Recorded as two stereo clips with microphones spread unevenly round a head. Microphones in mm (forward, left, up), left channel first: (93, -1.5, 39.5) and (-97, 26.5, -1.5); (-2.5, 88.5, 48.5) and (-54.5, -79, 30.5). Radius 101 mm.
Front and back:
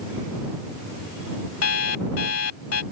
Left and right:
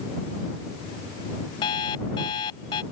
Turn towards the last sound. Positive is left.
turn(degrees=5)